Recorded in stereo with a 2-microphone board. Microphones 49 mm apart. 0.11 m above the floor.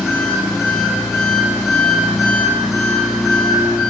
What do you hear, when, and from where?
0.0 s an engine running: 15° right (ahead or behind), 3 m